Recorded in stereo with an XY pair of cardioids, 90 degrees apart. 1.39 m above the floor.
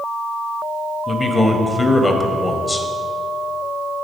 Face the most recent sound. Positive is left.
turn(degrees=30)